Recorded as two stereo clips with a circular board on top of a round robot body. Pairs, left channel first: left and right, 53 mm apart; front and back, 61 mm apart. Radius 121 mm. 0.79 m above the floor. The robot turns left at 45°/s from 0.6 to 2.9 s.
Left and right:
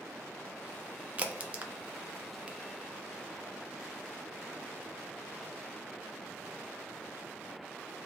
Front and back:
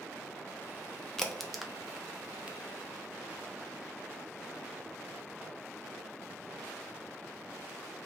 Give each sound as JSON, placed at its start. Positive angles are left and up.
{"t": 1.2, "sound": "a crack", "azimuth_deg": -70, "distance_m": 0.5}